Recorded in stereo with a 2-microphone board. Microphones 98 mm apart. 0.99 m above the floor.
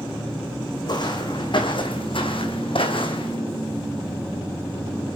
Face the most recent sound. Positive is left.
turn(degrees=60)  # may be behind; listen again after turning